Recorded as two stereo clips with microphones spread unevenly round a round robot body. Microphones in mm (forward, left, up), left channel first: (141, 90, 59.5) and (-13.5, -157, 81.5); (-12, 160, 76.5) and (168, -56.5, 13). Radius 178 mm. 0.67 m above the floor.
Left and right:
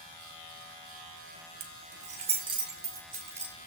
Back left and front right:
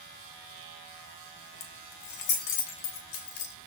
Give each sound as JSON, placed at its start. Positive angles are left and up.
{"t": 1.6, "sound": "keys jangling", "azimuth_deg": 180, "distance_m": 1.0}